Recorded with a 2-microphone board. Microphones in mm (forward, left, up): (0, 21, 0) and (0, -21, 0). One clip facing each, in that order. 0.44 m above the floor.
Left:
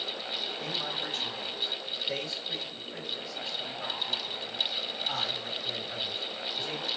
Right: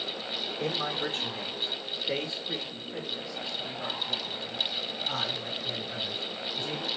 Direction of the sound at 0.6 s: 45° right (ahead or behind).